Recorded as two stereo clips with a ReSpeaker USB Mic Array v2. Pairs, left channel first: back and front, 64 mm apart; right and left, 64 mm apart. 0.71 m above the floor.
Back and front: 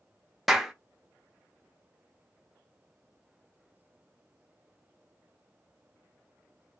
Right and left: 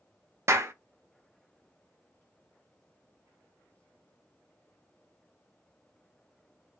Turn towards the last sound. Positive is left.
turn(degrees=90)